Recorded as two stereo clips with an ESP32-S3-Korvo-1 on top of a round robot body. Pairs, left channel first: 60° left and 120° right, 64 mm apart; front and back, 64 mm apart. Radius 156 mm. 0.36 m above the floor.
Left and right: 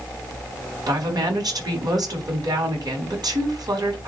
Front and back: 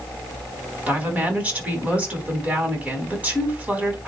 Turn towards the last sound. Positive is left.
turn(degrees=-110)